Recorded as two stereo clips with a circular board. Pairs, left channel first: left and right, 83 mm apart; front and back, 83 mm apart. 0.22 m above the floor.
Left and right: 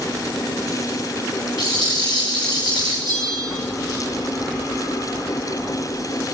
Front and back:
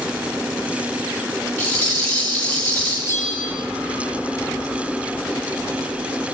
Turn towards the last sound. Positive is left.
turn(degrees=-60)